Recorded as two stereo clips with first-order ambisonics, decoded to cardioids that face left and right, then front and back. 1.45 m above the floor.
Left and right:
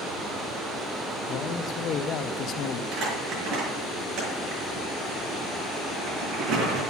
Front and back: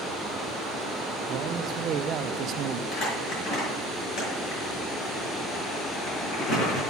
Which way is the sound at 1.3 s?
135° left.